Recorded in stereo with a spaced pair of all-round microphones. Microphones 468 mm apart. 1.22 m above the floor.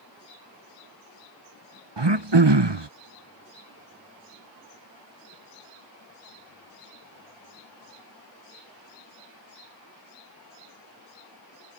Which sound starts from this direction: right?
Throat clearing, at 2.0 s.